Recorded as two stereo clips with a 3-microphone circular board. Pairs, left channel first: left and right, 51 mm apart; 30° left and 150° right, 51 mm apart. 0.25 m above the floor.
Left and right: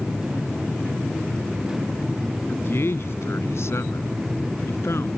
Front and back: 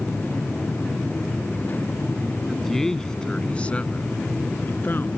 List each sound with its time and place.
2.5 s a man speaking: 120° left; by 5.1 s 70° left